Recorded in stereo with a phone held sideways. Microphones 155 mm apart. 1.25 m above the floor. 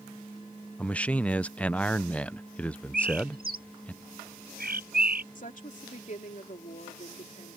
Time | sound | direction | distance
0.8 | a man speaking | 10° left (ahead or behind) | ?
2.9 | a bird | 75° right (ahead or behind) | ?
5.3 | a woman speaking | 55° left (ahead or behind) | ?